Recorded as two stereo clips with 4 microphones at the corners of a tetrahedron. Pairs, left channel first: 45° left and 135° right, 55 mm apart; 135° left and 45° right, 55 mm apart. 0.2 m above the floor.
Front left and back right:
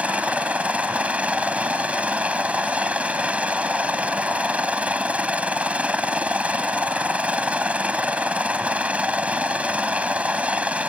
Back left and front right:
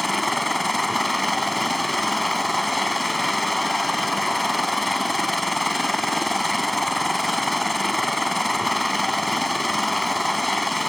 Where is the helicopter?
135° right.